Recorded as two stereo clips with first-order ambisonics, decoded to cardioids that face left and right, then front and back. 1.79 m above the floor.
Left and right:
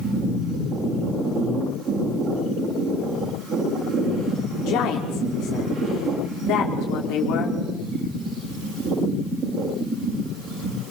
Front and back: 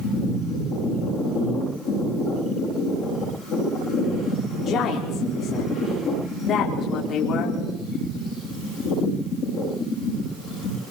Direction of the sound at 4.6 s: 60° left.